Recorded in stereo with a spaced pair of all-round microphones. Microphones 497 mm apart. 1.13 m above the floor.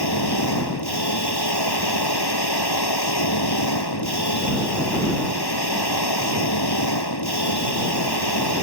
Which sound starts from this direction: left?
A machine running, at 0.0 s.